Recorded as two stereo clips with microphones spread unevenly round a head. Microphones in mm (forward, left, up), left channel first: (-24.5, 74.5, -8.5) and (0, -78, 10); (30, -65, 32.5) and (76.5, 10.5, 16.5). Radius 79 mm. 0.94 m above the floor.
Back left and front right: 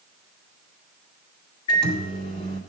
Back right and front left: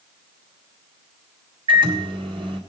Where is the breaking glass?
No breaking glass in this recording.